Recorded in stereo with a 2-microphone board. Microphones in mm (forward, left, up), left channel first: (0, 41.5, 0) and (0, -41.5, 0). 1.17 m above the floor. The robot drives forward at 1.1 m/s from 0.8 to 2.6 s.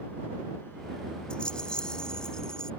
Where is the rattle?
10° left (ahead or behind).